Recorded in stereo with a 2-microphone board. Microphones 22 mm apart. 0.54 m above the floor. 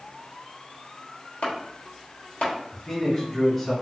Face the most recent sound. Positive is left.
turn(degrees=10)  # may be behind; listen again after turning